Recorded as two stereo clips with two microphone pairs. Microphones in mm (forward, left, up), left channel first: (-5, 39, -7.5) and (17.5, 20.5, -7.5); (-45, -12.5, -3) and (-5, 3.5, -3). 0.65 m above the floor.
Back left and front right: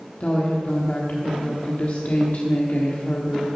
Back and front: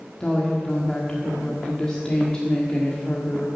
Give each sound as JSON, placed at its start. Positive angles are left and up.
{"t": 0.2, "sound": "a woman speaking", "azimuth_deg": 130, "distance_m": 1.3}